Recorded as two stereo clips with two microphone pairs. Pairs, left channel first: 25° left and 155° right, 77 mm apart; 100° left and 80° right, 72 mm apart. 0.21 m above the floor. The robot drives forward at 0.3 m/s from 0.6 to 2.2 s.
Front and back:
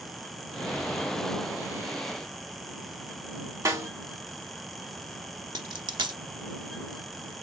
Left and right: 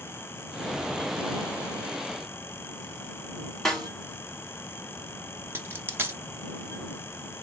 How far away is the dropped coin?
About 0.6 m.